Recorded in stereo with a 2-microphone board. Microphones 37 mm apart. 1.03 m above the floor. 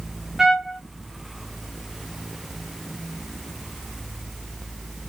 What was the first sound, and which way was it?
A trumpet, 10° right (ahead or behind).